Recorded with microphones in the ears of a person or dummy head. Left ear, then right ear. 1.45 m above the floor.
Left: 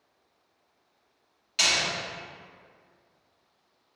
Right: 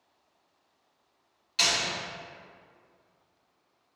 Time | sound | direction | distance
1.6 | a door slam | 5° left (ahead or behind) | 2 m